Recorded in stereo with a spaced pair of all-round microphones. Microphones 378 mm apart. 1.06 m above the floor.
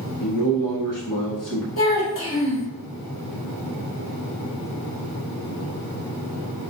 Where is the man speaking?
55° left (ahead or behind), 1.1 m.